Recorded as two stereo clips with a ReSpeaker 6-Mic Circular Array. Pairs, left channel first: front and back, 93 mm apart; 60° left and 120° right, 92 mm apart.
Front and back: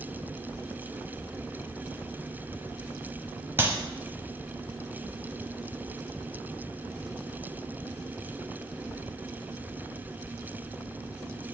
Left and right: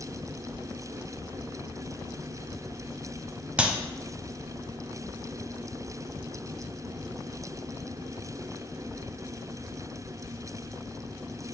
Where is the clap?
Straight behind, 0.8 m.